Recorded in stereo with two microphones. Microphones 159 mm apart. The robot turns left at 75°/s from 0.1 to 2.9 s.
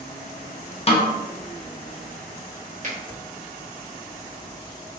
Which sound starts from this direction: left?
A snare drum, at 0.9 s.